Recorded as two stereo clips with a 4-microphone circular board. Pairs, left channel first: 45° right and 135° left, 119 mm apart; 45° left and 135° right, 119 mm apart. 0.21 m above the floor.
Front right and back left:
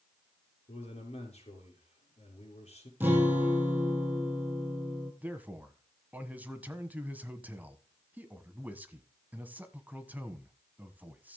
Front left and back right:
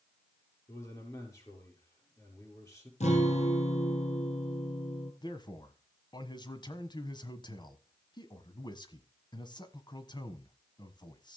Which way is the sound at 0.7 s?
20° right.